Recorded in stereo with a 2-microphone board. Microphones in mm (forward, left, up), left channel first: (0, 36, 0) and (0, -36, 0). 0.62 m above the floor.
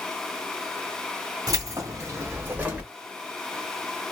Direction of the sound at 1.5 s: 50° right (ahead or behind).